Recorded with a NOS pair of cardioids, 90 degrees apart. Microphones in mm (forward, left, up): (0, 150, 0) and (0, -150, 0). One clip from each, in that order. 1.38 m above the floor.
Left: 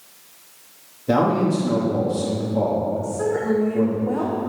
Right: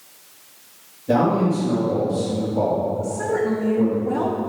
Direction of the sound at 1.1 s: 40° left.